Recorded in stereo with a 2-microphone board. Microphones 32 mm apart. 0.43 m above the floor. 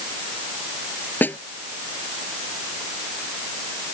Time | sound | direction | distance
1.2 | a snare drum | 80° left | ?